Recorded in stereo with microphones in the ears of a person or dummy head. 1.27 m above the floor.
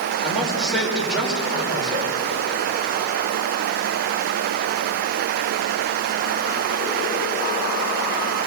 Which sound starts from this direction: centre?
A man speaking, at 0.2 s.